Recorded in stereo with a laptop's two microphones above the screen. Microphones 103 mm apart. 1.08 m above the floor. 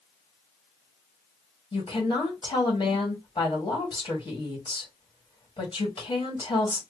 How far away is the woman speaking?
About 1.9 m.